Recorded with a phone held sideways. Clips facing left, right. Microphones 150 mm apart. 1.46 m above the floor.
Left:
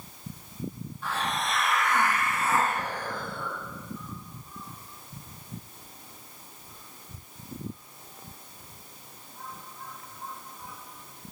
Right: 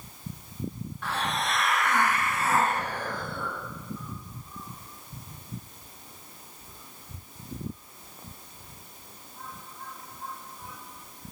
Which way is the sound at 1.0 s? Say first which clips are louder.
Even; 70° right (ahead or behind).